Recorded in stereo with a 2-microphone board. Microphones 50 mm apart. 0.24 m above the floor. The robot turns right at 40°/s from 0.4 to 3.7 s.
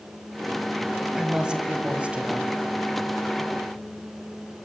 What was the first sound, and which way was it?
A woman speaking, 15° right (ahead or behind).